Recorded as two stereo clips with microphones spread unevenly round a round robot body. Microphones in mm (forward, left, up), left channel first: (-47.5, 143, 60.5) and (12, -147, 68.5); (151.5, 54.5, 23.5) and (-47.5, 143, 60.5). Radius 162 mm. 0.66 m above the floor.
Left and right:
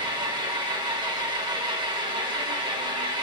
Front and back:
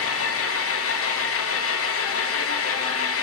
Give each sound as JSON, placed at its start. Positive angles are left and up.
{"t": 0.0, "sound": "an engine running", "azimuth_deg": 0, "distance_m": 0.8}